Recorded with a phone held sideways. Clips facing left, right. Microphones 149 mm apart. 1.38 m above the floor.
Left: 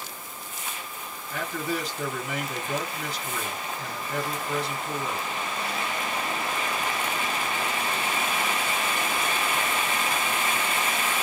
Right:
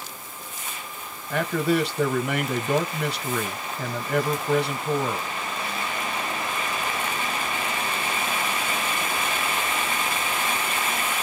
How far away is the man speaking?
About 1.4 m.